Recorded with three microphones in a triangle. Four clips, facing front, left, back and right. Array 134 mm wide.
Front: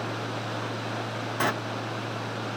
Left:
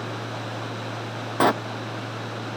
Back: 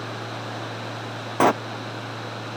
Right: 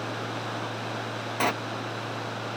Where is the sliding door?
160° left.